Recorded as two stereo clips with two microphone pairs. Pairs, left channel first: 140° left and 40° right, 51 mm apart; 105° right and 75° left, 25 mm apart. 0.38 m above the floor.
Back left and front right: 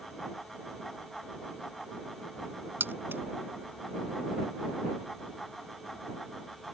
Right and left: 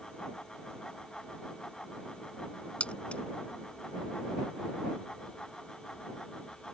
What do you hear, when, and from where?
2.8 s keys jangling: 80° right